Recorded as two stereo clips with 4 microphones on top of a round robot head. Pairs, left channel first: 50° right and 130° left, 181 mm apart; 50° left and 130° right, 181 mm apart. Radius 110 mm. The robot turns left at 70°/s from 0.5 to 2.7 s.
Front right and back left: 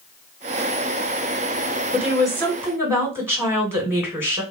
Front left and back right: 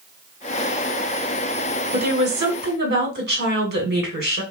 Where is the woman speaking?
95° right, 2 m; by 4.4 s 150° right, 2 m.